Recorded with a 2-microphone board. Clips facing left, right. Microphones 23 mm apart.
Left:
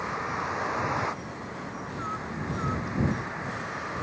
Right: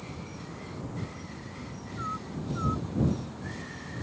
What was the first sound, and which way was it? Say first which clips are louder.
A vehicle: left 11 dB; 75° left (ahead or behind).